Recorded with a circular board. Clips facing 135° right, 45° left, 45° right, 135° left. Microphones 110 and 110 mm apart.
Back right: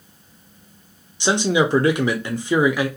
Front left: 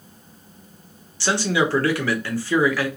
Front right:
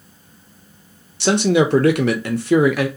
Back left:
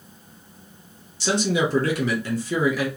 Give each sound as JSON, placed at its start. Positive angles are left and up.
{"t": 1.2, "sound": "a man speaking", "azimuth_deg": -65, "distance_m": 0.6}